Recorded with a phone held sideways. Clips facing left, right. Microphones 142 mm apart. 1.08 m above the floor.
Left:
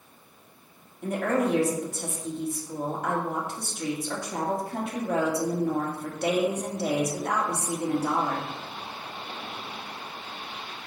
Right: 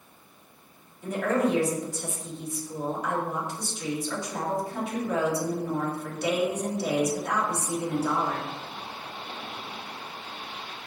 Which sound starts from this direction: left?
A woman speaking, at 1.0 s.